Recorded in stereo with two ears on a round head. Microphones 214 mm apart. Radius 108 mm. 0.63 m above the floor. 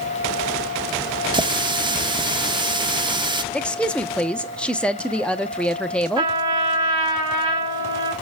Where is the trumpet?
25° right (ahead or behind), 3 m.